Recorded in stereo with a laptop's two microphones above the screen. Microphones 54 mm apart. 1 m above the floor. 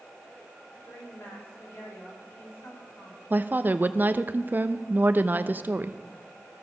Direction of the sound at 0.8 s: 55° left (ahead or behind).